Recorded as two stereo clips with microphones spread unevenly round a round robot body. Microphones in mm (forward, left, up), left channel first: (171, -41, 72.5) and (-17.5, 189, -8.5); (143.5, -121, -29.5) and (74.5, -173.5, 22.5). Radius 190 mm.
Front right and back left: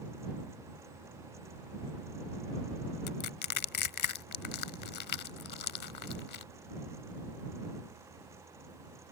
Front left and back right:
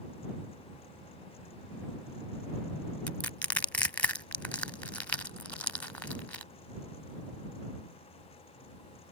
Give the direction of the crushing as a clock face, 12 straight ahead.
1 o'clock.